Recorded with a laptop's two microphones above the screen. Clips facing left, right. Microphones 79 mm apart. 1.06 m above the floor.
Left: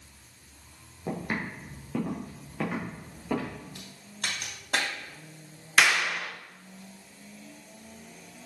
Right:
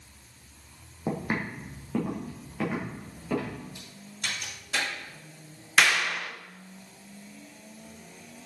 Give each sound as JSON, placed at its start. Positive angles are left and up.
{"t": 1.1, "sound": "footsteps", "side_deg": -25, "distance_m": 2.0}
{"t": 3.8, "sound": "a crack", "side_deg": 60, "distance_m": 2.5}
{"t": 5.8, "sound": "a clap", "side_deg": 5, "distance_m": 0.6}